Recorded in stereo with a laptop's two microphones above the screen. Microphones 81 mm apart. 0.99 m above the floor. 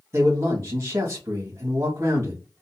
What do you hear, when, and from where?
0.1 s a man speaking: 35° right (ahead or behind), 1.8 m